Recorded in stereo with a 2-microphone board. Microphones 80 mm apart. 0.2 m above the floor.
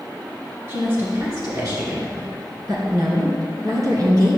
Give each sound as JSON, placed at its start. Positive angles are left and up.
{"t": 0.7, "sound": "a woman speaking", "side_deg": -40, "distance_m": 2.5}